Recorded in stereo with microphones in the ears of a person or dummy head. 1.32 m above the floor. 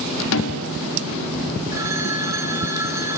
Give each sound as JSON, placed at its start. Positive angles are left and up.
{"t": 0.3, "sound": "a snare drum", "side_deg": 75, "distance_m": 0.8}
{"t": 1.7, "sound": "a phone ringing", "side_deg": -15, "distance_m": 2.0}